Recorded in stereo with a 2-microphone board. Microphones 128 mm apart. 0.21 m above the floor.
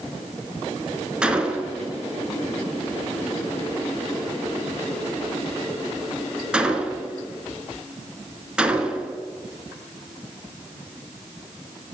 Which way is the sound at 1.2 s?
5° right (ahead or behind).